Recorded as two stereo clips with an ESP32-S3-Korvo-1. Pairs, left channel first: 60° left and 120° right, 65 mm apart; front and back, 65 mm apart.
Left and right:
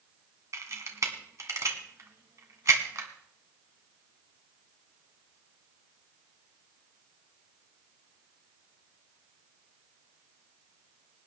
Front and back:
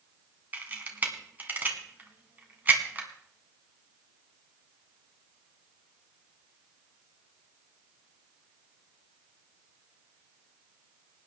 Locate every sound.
0.5 s a camera shutter: 125° right, 1.9 m